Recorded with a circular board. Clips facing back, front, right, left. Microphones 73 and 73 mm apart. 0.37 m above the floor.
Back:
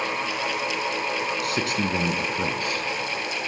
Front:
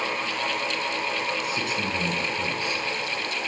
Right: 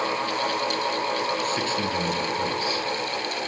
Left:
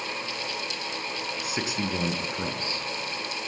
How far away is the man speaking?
About 4 m.